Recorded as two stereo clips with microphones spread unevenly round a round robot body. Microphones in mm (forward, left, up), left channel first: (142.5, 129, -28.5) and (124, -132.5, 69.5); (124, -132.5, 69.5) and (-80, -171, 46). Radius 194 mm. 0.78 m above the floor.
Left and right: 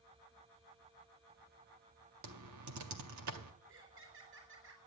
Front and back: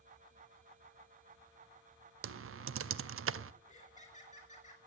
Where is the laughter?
50° right, 3.5 m.